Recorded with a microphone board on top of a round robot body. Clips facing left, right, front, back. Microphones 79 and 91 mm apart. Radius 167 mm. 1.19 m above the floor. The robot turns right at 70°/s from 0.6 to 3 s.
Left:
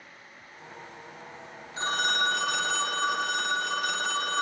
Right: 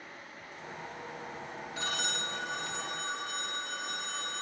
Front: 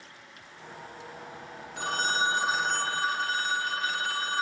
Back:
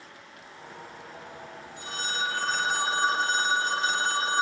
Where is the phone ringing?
30° left, 0.7 m; by 4.4 s 115° left, 0.7 m.